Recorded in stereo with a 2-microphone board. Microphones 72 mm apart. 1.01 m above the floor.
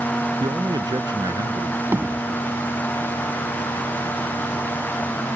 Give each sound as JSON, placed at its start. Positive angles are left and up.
{"t": 0.4, "sound": "a man speaking", "side_deg": -75}
{"t": 1.9, "sound": "hammering", "side_deg": -30}